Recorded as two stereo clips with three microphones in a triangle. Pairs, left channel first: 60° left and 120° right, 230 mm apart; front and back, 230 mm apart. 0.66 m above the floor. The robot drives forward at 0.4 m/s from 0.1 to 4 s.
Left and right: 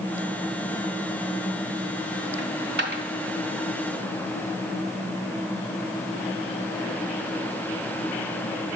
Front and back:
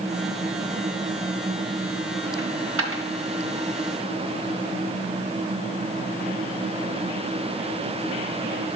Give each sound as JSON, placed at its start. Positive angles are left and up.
{"t": 2.4, "sound": "a dropped coin", "azimuth_deg": -155, "distance_m": 0.7}